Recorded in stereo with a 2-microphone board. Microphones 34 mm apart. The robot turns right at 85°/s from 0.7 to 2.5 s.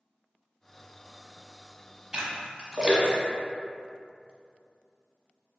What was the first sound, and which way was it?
A splash, 15° right (ahead or behind).